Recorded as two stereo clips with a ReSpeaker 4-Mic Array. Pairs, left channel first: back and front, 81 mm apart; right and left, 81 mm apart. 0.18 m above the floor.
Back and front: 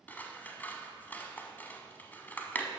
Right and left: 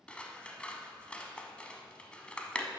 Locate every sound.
0.1 s scissors: 150° right, 0.8 m